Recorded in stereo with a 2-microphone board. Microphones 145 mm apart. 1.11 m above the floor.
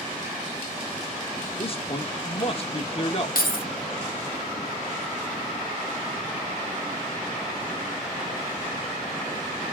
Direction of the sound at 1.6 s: 40° left (ahead or behind).